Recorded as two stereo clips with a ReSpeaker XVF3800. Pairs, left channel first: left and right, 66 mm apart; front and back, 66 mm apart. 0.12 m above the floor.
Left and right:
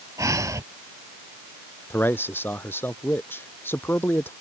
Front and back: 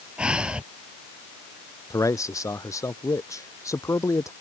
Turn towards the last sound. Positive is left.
turn(degrees=35)